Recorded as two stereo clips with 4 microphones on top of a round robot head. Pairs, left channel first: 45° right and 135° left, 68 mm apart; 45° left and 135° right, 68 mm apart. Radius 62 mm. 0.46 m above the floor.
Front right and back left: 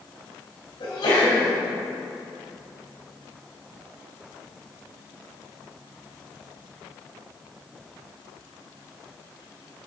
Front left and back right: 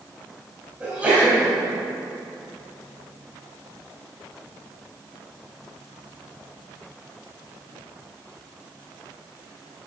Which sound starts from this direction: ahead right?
A sneeze, at 0.8 s.